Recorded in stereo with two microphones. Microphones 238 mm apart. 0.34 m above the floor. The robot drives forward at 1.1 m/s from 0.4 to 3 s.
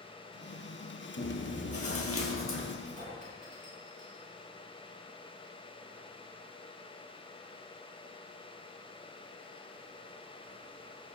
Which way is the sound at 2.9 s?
30° right (ahead or behind).